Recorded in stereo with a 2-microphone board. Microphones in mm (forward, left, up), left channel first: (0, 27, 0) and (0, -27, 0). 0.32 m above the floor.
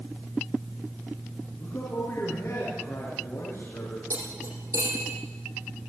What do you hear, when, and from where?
1.6 s a man speaking: 60° left (ahead or behind), 5.5 m
4.1 s cutlery clinking: 85° right, 8 m